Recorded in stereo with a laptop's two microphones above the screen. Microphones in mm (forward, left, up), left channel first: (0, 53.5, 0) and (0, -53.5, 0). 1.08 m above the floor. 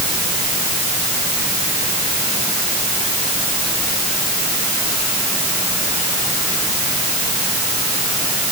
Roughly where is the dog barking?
No dog barking in this recording.